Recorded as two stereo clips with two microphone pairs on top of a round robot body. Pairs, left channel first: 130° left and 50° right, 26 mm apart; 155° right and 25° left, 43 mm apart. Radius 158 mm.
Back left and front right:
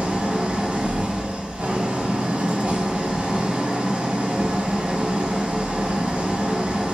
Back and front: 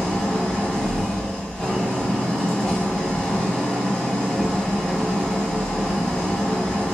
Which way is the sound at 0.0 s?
80° right.